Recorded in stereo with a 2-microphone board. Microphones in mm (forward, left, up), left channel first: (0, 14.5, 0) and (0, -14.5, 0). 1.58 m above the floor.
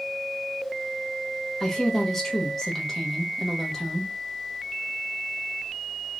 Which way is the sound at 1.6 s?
5° left (ahead or behind).